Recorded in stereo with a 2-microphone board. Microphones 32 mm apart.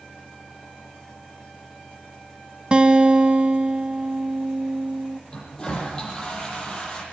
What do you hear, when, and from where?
2.7 s a guitar: 30° right (ahead or behind), 1.1 m
5.3 s a toilet flushing: 25° left (ahead or behind), 8 m